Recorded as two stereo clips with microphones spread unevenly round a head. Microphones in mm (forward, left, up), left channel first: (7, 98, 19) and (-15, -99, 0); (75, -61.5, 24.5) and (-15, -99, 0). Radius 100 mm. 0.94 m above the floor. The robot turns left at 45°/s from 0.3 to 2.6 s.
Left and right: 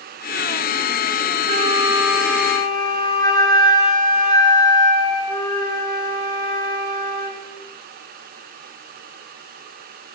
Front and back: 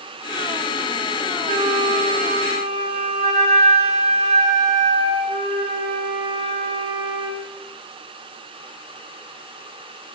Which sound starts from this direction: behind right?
A flute, at 1.5 s.